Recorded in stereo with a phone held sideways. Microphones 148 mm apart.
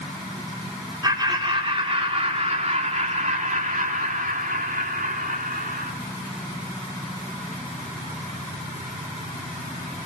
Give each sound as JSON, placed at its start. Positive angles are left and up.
{"t": 1.0, "sound": "laughter", "side_deg": -30, "distance_m": 4.5}